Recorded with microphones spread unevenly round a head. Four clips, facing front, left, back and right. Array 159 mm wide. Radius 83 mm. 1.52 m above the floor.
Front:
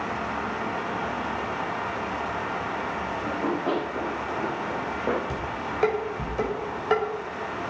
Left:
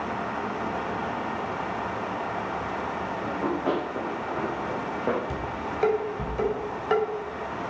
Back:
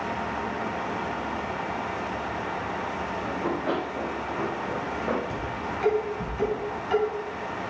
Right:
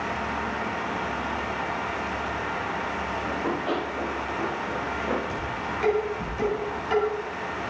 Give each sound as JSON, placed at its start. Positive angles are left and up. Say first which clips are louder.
{"t": 3.2, "sound": "running footsteps", "louder": "left 2 dB, front 2 dB", "azimuth_deg": 60, "distance_m": 8.0}
{"t": 5.3, "sound": "dishes clattering", "louder": "right 1 dB, front 1 dB", "azimuth_deg": 30, "distance_m": 5.5}